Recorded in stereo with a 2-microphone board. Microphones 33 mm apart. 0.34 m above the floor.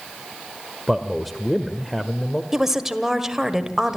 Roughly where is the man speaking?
Centre.